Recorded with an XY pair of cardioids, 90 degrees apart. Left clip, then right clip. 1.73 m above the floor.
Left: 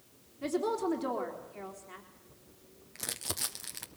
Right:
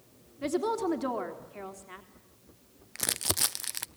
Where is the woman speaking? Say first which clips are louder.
Right 2 dB; 35° right, 3.5 m.